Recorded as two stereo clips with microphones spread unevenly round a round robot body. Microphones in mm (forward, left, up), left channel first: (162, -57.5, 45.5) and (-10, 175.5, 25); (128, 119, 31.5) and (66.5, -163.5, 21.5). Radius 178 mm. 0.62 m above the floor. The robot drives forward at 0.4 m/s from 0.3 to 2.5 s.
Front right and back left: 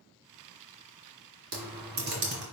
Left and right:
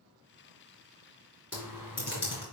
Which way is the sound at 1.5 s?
170° left.